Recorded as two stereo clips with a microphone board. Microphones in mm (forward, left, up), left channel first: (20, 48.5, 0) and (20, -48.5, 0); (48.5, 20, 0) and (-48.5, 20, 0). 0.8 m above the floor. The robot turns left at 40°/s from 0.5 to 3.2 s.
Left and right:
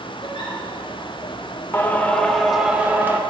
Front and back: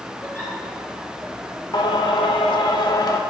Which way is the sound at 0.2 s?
70° left.